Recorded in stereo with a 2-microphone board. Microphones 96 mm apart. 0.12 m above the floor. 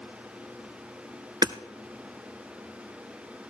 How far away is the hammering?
About 0.6 m.